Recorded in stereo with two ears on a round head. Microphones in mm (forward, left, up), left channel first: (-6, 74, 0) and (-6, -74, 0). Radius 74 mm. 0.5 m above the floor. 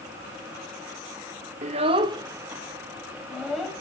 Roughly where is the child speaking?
Right.